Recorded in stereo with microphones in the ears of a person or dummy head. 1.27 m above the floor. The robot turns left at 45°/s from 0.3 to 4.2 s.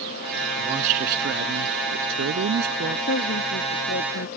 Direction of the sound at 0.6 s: 30° right.